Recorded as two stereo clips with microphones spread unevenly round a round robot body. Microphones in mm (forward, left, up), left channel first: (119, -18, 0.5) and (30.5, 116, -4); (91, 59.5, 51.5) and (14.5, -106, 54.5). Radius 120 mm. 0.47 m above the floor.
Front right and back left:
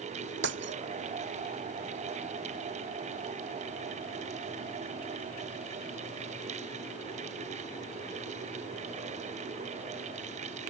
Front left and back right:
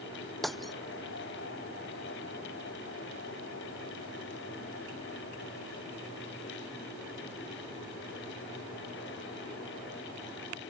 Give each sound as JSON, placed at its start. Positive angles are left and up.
{"t": 0.4, "sound": "breaking glass", "azimuth_deg": 155}